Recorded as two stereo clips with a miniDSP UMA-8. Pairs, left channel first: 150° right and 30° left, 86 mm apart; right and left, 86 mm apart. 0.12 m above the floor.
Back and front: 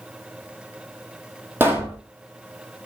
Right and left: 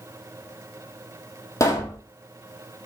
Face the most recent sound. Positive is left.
turn(degrees=-35)